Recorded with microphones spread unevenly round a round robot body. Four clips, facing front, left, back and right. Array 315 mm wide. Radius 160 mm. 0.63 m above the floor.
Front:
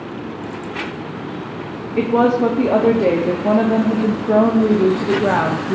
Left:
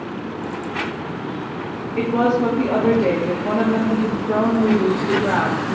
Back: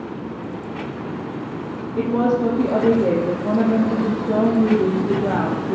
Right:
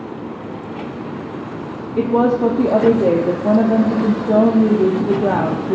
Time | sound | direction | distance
2.0 | a woman speaking | 60° right | 1.0 m